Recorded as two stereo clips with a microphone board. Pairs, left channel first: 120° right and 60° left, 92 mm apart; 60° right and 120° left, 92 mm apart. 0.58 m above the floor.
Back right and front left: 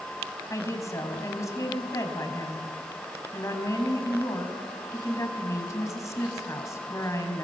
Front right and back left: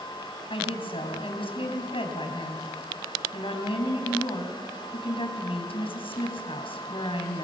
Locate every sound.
0.5 s a woman speaking: 65° right, 4.5 m